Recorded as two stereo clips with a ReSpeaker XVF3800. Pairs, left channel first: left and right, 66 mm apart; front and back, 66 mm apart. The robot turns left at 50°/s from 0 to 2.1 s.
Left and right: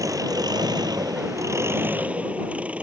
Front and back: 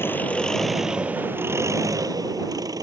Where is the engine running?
55° right; by 2.9 s 160° right.